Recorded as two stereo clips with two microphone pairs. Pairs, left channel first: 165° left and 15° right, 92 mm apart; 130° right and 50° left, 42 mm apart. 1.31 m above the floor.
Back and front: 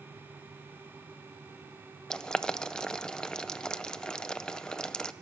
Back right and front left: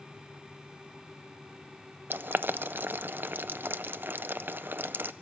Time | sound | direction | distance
2.1 | boiling | 80° left | 0.5 m